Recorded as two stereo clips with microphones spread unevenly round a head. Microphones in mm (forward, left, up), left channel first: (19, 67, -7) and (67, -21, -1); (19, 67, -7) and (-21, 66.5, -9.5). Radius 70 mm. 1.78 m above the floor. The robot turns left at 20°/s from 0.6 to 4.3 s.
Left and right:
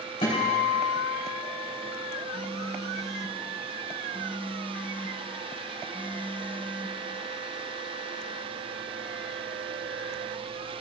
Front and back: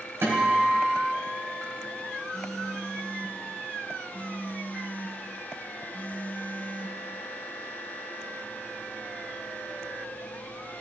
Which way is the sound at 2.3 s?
80° left.